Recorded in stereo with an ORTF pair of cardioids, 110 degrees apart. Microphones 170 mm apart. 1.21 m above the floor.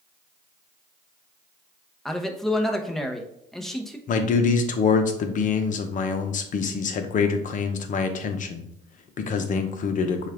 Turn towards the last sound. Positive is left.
turn(degrees=50)